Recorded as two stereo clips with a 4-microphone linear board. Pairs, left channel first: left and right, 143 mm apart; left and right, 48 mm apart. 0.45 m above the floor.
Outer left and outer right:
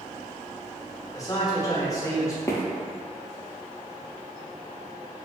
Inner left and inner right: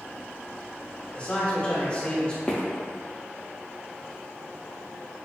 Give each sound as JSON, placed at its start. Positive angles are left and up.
{"t": 1.1, "sound": "a man speaking", "side_deg": 25, "distance_m": 0.8}
{"t": 2.5, "sound": "footsteps", "side_deg": 25, "distance_m": 0.6}